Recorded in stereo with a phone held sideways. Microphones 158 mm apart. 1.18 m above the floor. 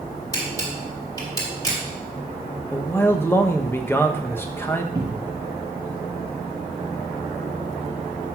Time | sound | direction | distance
0.3 | a camera shutter | 25° left (ahead or behind) | 4.5 m
2.7 | a man speaking | 15° left (ahead or behind) | 1.0 m
5.0 | a cupboard door | 25° right (ahead or behind) | 1.3 m